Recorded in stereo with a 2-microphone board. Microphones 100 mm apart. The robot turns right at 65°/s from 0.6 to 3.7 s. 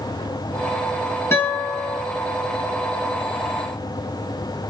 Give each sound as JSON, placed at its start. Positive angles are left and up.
{"t": 1.3, "sound": "a guitar", "azimuth_deg": 150, "distance_m": 2.5}